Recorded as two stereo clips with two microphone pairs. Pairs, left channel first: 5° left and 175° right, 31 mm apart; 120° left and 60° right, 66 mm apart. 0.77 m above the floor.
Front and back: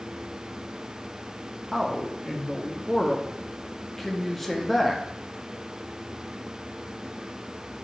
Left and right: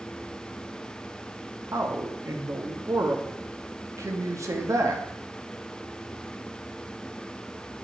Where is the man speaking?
80° right, 1.0 m.